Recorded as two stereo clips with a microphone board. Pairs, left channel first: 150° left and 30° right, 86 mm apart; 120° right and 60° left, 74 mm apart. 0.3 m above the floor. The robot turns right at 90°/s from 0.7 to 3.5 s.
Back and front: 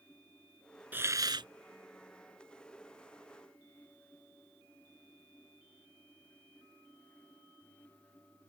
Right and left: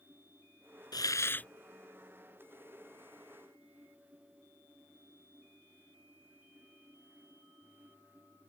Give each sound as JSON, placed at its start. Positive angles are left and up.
{"t": 0.9, "sound": "a hiss", "azimuth_deg": -100}